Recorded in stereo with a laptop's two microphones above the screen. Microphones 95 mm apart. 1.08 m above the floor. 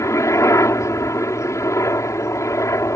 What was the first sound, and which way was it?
A helicopter, 30° left (ahead or behind).